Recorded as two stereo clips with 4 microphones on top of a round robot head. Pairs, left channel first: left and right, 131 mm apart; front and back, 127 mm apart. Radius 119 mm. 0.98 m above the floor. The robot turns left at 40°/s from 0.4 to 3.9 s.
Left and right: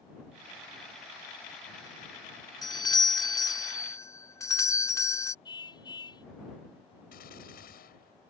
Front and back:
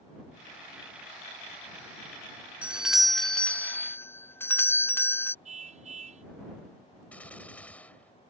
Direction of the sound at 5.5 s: 150° left.